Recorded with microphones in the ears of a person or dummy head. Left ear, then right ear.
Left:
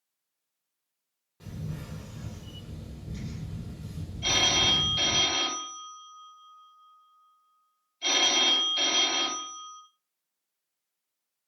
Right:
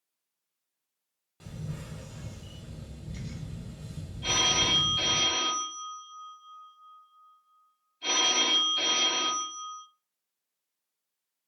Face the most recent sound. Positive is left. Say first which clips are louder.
# left 2 dB
turn(degrees=15)  # may be behind; listen again after turning